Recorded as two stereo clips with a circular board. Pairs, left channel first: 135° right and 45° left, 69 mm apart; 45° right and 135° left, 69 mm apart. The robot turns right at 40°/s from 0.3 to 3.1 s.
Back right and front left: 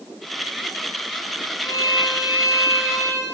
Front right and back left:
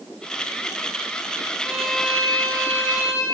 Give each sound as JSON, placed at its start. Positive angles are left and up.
{"t": 1.6, "sound": "a violin", "azimuth_deg": -145, "distance_m": 2.0}